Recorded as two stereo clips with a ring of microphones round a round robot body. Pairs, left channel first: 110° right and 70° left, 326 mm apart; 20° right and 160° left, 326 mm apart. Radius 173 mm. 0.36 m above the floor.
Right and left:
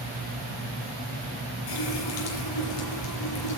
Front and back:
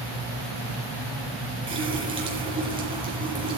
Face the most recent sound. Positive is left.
turn(degrees=-125)